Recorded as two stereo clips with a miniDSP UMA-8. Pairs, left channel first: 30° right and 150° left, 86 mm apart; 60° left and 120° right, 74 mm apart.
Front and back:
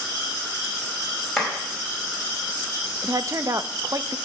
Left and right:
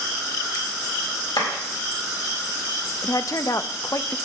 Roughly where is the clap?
Ahead left.